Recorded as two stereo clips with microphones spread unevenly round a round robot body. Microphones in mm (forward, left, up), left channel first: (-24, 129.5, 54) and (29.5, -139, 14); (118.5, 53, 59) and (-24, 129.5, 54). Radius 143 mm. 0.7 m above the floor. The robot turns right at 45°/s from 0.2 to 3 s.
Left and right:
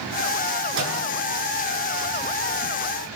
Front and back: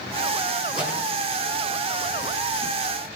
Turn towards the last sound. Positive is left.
turn(degrees=0)